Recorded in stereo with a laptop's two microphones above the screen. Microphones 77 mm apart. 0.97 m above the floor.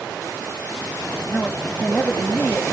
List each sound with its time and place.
1.3 s a man speaking: 20° left (ahead or behind), 1.2 m